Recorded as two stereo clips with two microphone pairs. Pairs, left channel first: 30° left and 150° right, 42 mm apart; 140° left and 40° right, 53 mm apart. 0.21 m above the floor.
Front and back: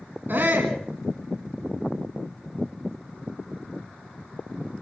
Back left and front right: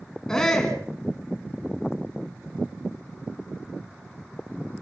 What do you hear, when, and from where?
0.3 s a shout: 145° right, 2 m